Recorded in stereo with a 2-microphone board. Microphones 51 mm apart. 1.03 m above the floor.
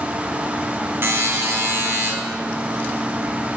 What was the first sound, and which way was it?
A buzzer, 50° right (ahead or behind).